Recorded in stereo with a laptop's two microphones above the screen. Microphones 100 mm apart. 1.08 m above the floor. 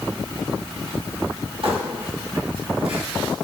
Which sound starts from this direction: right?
Crumpling, at 1.6 s.